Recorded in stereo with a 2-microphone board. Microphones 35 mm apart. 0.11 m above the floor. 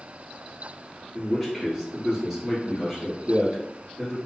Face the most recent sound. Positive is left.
turn(degrees=-5)  # may be behind; listen again after turning